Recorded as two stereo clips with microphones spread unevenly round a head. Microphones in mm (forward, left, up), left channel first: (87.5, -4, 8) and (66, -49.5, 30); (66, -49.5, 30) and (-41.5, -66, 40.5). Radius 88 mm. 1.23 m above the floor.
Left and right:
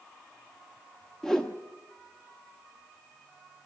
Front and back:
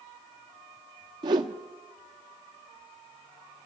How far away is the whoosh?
About 0.8 m.